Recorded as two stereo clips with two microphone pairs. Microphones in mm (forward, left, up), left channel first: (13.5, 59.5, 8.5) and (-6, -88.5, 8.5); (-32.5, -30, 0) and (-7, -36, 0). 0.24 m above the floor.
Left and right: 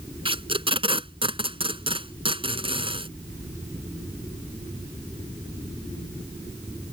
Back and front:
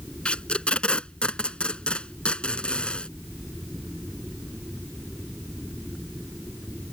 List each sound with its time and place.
0.2 s tape being pulled: 145° right